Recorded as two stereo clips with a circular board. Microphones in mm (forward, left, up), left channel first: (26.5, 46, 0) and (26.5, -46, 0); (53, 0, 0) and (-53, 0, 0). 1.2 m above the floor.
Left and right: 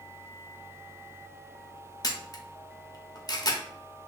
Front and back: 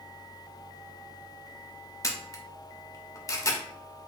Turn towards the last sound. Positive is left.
turn(degrees=50)